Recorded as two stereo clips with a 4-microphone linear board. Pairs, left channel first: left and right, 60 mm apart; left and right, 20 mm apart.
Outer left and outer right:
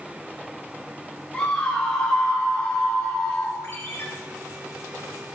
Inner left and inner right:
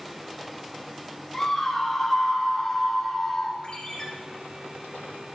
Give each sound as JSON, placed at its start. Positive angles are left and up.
{"t": 1.3, "sound": "a scream", "side_deg": 15, "distance_m": 7.5}
{"t": 3.6, "sound": "a ringtone", "side_deg": 50, "distance_m": 4.0}